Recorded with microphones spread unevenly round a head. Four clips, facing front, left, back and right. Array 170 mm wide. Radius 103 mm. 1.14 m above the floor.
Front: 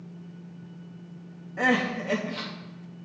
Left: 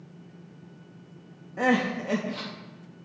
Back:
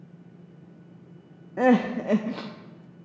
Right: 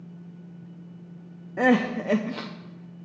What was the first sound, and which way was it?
Crying, 135° right.